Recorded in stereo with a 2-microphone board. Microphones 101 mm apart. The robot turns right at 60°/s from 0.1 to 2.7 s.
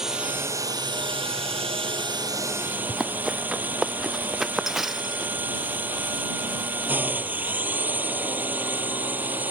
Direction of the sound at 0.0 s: 175° right.